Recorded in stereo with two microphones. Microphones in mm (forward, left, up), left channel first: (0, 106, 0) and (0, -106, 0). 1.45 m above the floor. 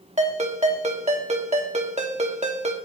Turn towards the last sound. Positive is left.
turn(degrees=-35)  # may be behind; listen again after turning